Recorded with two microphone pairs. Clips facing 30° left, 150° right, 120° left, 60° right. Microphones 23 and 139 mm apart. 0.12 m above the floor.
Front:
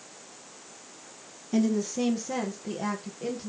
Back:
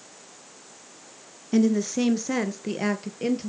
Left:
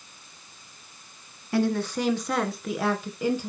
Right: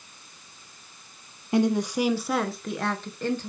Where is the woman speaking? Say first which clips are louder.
Back 4 dB, right 2 dB; 110° right, 1.2 m; by 3.5 s 160° right, 2.0 m.